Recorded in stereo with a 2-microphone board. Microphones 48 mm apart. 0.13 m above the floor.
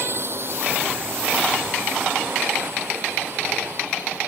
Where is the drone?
50° right (ahead or behind).